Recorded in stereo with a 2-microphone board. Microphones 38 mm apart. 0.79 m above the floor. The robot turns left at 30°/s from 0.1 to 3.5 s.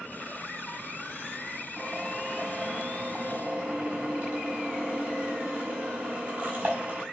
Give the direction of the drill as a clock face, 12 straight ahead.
12 o'clock.